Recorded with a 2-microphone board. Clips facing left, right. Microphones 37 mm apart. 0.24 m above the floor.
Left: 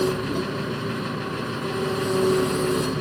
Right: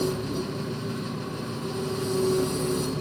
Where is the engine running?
50° left (ahead or behind), 0.9 m.